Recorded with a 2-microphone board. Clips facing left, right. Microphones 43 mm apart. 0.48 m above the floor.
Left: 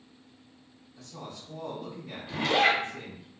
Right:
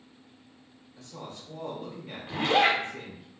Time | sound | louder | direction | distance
1.0 | a woman speaking | right 1 dB | 50° right (ahead or behind) | 1.3 m
2.3 | a zipper | right 1 dB | 45° right (ahead or behind) | 0.8 m